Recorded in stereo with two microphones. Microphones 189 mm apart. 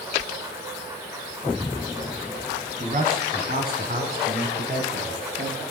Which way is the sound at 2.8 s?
40° right (ahead or behind).